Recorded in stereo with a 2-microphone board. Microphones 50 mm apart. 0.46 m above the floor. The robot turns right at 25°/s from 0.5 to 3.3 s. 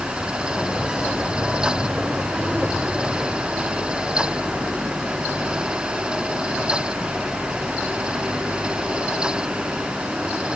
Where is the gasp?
No gasp in this recording.